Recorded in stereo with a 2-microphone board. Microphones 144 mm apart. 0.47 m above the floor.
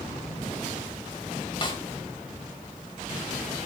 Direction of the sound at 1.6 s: 35° left (ahead or behind).